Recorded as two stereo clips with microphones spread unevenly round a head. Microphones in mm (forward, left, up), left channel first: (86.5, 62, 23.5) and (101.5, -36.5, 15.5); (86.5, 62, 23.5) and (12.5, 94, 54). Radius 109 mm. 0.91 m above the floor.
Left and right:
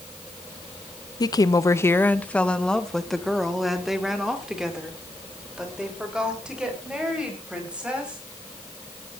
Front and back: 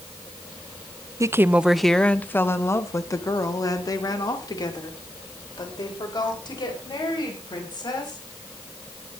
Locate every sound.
1.2 s a woman speaking: 100° left, 0.9 m; by 8.2 s straight ahead, 7 m